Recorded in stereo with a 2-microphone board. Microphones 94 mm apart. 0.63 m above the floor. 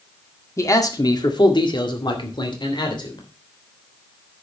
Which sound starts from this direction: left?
A man speaking, at 0.6 s.